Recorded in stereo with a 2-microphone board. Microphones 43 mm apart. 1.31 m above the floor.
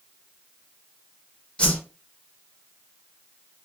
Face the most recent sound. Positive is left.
turn(degrees=25)  # may be behind; listen again after turning